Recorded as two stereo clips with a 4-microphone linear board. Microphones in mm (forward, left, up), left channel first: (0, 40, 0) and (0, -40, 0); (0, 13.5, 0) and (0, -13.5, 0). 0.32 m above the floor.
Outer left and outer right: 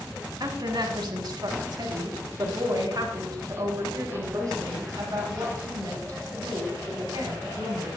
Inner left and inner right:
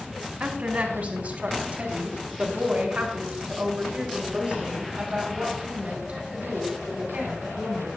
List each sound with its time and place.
0.4 s a woman speaking: 60° right (ahead or behind), 2.5 m; by 7.9 s 45° right (ahead or behind), 6.5 m